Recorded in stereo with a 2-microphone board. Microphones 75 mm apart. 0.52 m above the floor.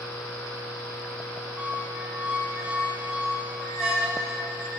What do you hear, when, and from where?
1.6 s a squeak: 15° right (ahead or behind), 1.5 m